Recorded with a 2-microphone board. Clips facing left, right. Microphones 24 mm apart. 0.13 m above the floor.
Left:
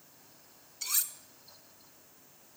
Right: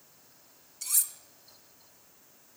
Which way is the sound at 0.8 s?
20° left (ahead or behind).